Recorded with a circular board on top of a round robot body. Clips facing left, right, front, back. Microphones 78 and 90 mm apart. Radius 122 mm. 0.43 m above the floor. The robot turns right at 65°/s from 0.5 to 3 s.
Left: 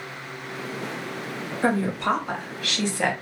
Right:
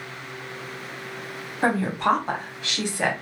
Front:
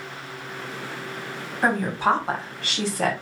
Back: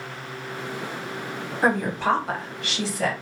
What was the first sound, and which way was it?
A woman speaking, 100° right.